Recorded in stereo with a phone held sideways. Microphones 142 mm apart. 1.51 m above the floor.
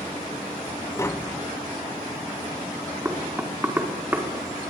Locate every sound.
1.0 s tapping: 20° left (ahead or behind), 0.5 m
3.0 s knocking: 10° right (ahead or behind), 4.5 m